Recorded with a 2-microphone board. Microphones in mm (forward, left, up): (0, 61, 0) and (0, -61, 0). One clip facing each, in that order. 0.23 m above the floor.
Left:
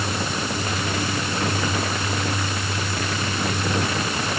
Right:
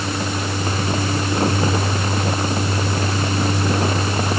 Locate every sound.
Only background noise.